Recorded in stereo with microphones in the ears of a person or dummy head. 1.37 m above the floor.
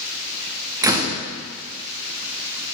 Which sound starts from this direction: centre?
A door slam, at 0.8 s.